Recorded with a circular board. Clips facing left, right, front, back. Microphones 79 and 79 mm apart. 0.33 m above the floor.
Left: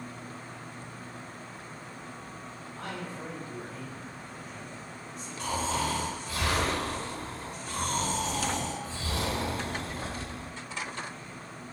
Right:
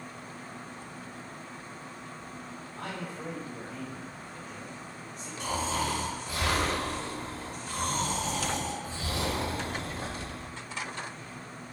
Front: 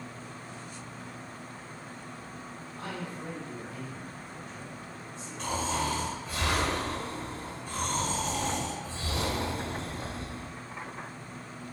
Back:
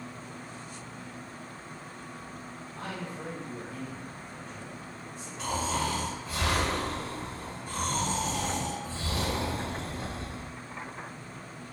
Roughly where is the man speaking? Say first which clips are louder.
Even, even; behind.